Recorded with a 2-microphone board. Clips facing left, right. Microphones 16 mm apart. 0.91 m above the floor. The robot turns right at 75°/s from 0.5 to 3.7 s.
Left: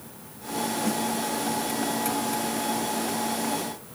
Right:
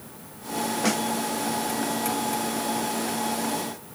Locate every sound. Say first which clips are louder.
0.8 s a snare drum: right 5 dB; 55° right (ahead or behind); by 1.0 s 40° right (ahead or behind)